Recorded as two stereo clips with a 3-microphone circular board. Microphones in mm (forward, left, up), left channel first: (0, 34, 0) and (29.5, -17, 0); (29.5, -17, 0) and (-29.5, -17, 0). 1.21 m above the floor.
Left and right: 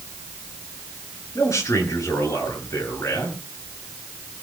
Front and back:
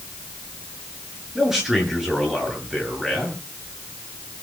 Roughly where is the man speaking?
Left.